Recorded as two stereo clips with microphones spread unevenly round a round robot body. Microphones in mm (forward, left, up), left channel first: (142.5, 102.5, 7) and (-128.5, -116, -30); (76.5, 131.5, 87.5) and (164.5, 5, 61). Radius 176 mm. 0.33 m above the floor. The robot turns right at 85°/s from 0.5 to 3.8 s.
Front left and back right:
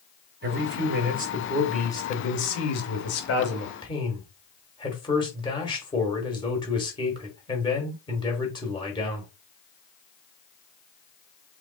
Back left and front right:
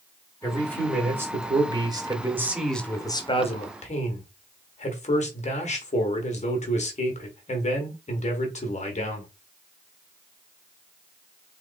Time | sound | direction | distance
0.4 | a man speaking | 165° right | 1.2 m